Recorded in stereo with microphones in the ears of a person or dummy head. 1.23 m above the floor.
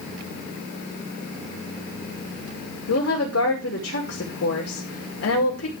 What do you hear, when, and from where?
2.9 s a woman speaking: 75° left (ahead or behind), 2.5 m